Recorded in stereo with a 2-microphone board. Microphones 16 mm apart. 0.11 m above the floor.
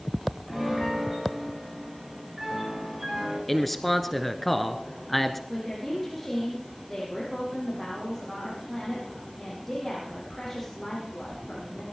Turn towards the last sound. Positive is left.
turn(degrees=15)  # may be behind; listen again after turning